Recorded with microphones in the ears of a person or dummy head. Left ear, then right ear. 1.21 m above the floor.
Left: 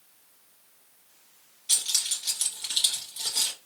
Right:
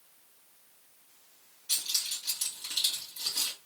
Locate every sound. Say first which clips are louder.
1.7 s keys jangling: left 4 dB; 45° left (ahead or behind), 2.5 m